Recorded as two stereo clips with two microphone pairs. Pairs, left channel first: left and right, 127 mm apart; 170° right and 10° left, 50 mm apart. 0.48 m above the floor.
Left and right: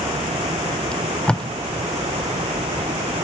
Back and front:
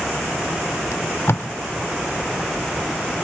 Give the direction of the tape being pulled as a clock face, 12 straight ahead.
6 o'clock.